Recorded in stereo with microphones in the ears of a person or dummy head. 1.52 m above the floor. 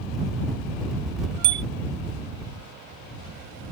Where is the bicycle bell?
65° right (ahead or behind).